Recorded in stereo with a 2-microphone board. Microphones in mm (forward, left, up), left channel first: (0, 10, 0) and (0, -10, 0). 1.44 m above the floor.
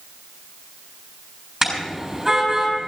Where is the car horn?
20° right (ahead or behind), 7.5 m.